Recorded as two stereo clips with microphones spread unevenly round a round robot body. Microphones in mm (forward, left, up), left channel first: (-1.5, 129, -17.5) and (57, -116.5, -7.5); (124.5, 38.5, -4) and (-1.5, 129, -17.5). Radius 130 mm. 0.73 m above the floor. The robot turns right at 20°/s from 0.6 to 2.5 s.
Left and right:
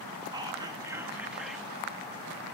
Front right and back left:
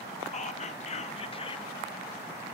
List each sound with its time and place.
0.3 s whispering: 5° right, 0.7 m; by 1.7 s 20° left, 0.7 m